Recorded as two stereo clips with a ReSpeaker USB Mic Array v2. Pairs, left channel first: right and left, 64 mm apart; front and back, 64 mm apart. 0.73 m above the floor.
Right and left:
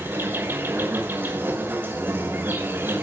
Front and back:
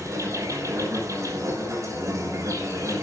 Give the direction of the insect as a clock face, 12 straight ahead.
7 o'clock.